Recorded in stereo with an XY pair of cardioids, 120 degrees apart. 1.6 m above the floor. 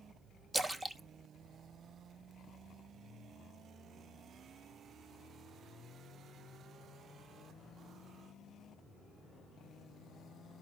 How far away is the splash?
About 0.7 m.